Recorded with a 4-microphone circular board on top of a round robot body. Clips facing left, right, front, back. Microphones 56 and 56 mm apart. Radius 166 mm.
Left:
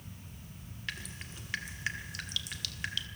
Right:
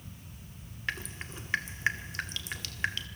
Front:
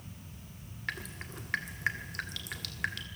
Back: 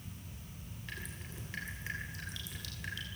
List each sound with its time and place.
0.9 s dripping: 30° right, 1.5 m